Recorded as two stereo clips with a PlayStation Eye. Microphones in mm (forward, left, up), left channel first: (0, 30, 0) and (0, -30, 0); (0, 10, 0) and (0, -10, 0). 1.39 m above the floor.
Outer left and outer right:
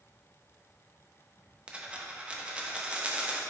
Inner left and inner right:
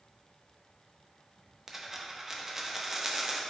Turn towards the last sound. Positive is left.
turn(degrees=-20)  # may be behind; listen again after turning